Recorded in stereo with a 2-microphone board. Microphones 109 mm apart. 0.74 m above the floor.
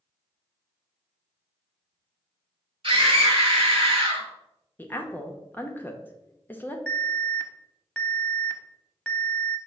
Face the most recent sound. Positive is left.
turn(degrees=5)  # may be behind; listen again after turning